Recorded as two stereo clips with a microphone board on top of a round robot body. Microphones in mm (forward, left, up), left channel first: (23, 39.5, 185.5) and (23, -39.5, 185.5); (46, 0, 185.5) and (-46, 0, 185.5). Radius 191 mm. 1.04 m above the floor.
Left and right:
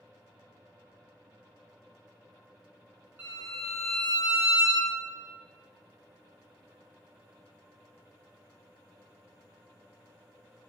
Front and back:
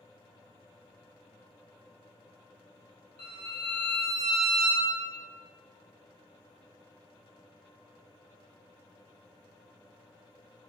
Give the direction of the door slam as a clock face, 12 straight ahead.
I don't hear a door slam.